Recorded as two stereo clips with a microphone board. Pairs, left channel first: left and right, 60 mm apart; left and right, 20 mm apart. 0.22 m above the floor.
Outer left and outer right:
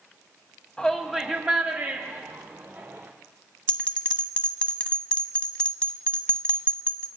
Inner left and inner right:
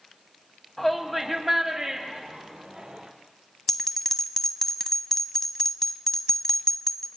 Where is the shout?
10° left (ahead or behind), 1.3 m; by 3.1 s 60° right (ahead or behind), 2.5 m.